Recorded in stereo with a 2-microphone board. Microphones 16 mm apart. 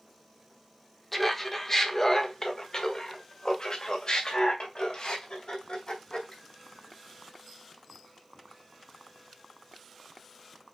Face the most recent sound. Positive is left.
turn(degrees=75)  # may be behind; listen again after turning